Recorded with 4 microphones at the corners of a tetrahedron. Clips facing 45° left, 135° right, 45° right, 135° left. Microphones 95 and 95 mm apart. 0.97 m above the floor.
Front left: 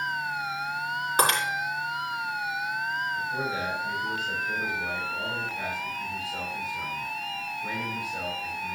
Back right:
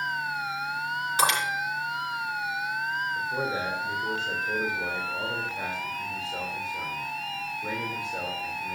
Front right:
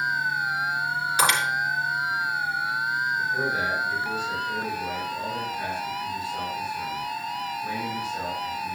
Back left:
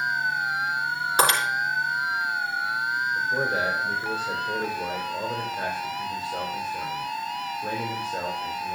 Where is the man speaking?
165° left, 3 m.